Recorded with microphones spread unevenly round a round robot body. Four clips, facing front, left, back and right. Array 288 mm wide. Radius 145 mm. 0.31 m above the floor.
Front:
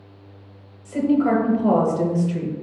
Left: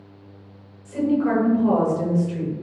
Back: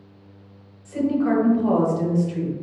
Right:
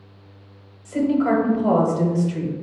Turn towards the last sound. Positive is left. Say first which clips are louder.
# right 2 dB, front 2 dB
turn(degrees=-35)